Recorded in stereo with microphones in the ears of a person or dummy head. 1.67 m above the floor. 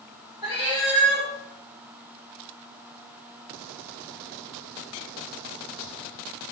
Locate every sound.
0.4 s a cat meowing: 15° right (ahead or behind), 1.7 m